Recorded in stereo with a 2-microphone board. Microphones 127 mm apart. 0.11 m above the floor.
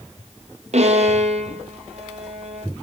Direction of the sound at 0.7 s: 65° right (ahead or behind).